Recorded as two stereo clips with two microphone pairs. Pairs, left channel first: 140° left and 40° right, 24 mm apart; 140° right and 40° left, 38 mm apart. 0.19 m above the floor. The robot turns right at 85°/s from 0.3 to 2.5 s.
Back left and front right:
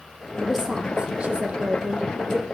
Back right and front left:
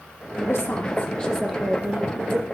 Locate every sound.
0.4 s a woman speaking: 145° right, 5.5 m; by 2.5 s 35° left, 5.5 m